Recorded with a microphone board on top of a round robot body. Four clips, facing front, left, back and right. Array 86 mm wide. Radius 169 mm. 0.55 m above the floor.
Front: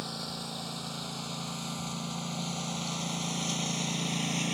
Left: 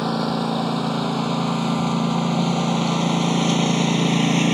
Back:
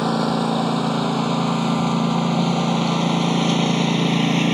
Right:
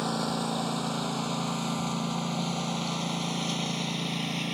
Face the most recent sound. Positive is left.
turn(degrees=135)